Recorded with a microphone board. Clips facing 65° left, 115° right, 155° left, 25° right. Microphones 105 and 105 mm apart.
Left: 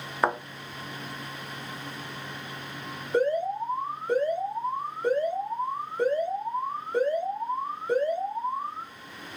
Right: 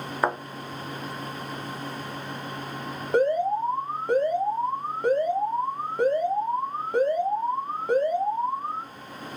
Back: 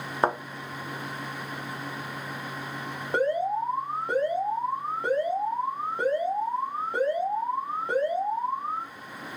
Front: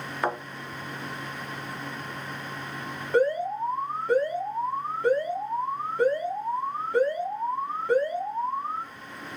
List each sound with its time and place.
0.2 s a thud: 160° left, 0.5 m
3.1 s an alarm: 135° right, 1.0 m